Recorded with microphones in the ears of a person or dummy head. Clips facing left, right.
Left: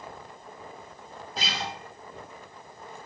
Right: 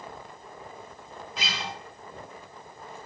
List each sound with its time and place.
1.4 s a guitar: 30° left (ahead or behind), 0.5 m